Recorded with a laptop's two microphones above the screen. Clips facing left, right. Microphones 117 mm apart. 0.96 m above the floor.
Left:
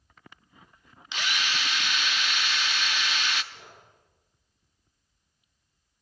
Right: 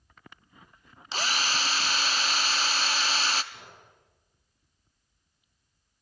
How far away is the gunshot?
About 7.5 m.